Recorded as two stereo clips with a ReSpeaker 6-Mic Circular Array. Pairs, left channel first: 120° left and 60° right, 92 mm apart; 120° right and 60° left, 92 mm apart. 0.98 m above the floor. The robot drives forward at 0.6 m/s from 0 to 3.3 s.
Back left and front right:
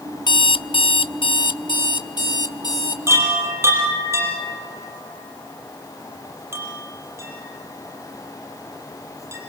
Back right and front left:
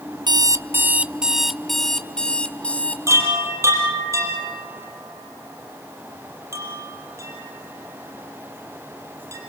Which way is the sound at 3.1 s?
Straight ahead.